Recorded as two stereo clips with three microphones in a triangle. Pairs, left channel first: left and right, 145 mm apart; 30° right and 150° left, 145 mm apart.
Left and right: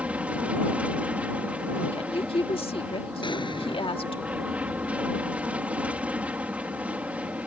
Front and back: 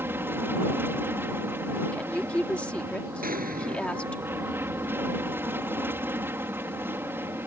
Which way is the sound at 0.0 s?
160° right.